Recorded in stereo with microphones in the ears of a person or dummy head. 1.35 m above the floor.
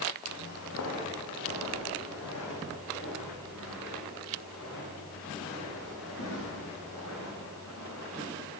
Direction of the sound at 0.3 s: 65° left (ahead or behind).